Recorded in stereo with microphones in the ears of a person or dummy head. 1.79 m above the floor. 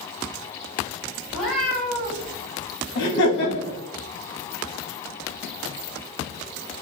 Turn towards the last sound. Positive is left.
turn(degrees=60)  # may be behind; listen again after turning